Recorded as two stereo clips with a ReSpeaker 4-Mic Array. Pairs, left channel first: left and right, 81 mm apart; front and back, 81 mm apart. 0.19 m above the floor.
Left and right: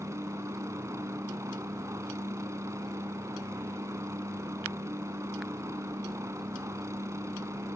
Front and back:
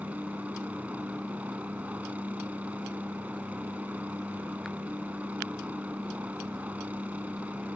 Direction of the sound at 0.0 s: 120° right.